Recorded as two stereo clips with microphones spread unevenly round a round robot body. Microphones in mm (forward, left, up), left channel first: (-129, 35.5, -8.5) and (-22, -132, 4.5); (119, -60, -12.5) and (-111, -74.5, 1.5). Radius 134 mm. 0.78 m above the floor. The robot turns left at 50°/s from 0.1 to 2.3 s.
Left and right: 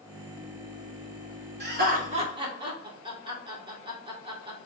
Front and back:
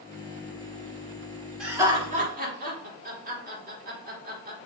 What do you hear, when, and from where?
1.6 s laughter: 90° right, 1.9 m; by 4.7 s 125° right, 1.9 m